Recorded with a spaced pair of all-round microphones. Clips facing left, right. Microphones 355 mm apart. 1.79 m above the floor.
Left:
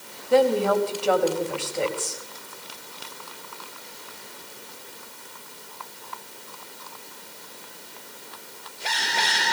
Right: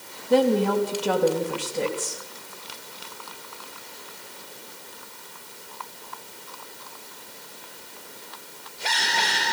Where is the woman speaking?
45° right (ahead or behind), 4 m.